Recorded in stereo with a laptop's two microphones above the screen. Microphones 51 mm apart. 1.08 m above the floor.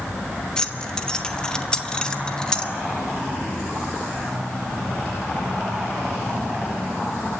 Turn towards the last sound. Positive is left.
turn(degrees=15)  # may be behind; listen again after turning